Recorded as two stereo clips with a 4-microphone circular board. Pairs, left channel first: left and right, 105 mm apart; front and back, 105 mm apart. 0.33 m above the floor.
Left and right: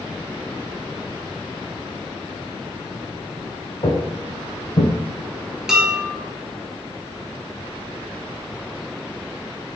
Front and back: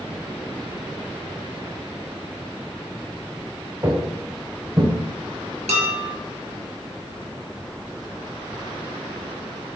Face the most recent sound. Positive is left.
turn(degrees=-175)